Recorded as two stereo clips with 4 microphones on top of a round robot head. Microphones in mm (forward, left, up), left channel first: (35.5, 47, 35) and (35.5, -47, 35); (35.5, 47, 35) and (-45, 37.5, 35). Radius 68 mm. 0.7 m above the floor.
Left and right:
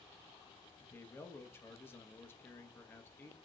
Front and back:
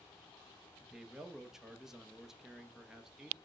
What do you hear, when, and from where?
0.8 s a man speaking: 110° left, 0.6 m